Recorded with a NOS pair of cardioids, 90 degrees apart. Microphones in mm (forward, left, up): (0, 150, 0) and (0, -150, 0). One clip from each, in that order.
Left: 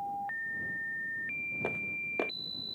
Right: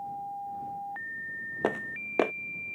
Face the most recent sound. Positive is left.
turn(degrees=-65)